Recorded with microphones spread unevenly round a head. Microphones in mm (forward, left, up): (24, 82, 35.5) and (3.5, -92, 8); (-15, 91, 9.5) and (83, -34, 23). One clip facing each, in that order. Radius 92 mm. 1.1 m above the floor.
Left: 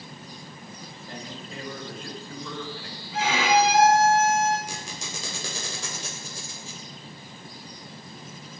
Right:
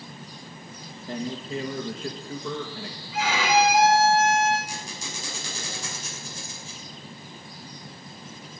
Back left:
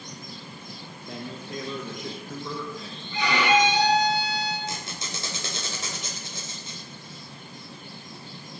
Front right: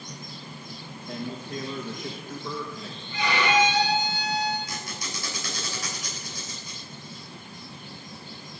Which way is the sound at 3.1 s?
145° left.